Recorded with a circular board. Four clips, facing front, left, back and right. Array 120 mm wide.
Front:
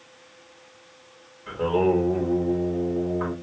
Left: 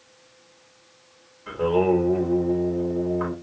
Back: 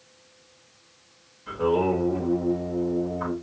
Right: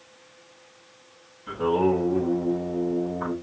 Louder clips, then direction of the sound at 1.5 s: Left 2 dB, front 1 dB; 65° left.